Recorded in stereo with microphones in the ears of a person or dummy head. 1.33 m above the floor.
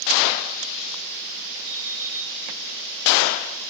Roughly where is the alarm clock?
Right.